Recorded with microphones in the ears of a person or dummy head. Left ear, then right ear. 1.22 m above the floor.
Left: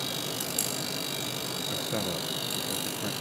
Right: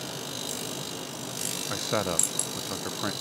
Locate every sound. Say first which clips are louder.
1.7 s a man speaking: right 6 dB; 45° right (ahead or behind)